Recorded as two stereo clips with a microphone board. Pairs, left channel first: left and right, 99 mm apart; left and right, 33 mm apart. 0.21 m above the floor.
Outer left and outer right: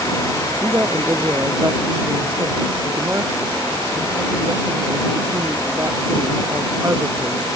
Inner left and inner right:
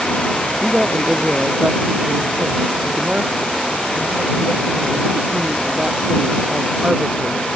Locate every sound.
0.6 s a woman speaking: 30° right (ahead or behind)